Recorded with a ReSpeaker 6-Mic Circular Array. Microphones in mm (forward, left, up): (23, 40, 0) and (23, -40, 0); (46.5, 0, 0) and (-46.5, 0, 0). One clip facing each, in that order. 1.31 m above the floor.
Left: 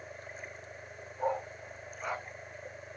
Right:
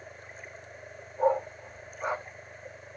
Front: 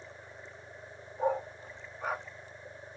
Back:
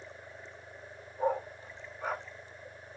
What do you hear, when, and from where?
1.2 s a dog barking: 75° right, 0.8 m